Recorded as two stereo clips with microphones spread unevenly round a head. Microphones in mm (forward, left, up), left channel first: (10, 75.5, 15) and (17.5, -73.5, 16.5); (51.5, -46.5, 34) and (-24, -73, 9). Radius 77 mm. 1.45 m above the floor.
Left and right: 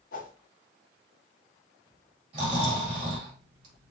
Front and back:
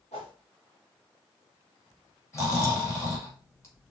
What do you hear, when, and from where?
0.1 s a whoosh: 60° left, 1.5 m
2.3 s snoring: 35° right, 2.5 m